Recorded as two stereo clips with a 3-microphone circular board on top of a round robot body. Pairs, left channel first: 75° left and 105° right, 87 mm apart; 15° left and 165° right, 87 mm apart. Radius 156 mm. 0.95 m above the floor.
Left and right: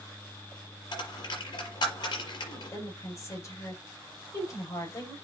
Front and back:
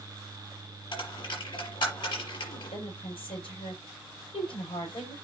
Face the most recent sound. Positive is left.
turn(degrees=25)